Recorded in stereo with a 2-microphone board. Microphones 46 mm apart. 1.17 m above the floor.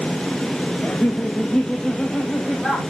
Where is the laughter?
35° left (ahead or behind), 0.8 m; by 2.8 s 10° left (ahead or behind), 2 m.